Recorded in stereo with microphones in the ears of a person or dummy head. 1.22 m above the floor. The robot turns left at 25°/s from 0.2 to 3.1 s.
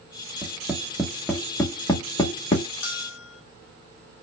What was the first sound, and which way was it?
Tapping, 20° right (ahead or behind).